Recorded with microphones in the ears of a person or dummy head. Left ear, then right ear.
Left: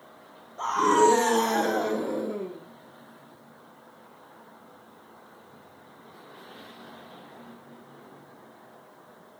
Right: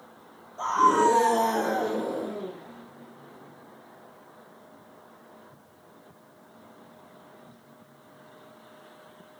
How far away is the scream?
About 0.6 m.